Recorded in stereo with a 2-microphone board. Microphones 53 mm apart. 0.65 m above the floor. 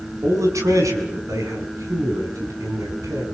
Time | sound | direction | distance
0.2 | a man speaking | 80° right | 6.5 m